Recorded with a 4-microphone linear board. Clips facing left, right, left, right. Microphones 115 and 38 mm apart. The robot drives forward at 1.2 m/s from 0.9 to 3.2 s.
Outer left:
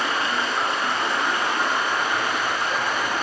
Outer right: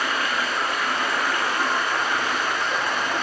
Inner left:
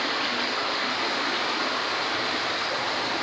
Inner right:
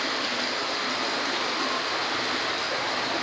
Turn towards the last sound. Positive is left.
turn(degrees=15)  # may be behind; listen again after turning